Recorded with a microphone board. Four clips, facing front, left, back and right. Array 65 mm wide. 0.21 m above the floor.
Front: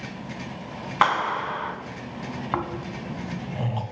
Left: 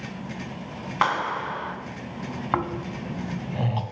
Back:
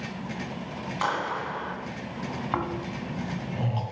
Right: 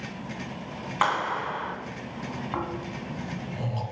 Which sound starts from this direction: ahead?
A clap, at 1.0 s.